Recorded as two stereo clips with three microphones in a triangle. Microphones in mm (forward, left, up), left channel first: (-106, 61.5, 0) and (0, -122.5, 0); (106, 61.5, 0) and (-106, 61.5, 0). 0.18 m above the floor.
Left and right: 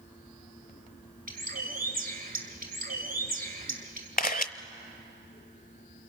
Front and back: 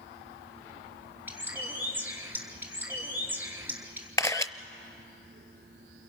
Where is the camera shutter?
75° left, 0.7 m.